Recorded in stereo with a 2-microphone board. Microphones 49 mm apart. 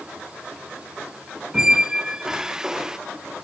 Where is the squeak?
10° right (ahead or behind), 0.8 m.